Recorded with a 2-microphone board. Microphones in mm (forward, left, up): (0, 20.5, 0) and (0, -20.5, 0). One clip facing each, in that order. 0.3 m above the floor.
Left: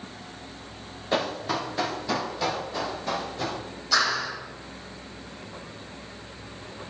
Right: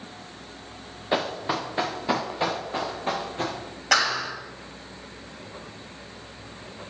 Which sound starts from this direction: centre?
Running footsteps, at 1.1 s.